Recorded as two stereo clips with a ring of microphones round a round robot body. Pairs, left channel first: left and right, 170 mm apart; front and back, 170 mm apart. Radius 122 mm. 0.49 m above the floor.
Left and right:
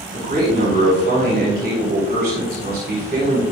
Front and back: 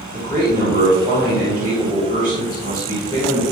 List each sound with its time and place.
0.1 s a man speaking: 70° right, 2.5 m